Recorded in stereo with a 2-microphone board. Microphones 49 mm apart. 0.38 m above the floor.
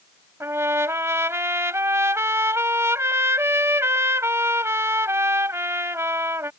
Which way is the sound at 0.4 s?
60° right (ahead or behind).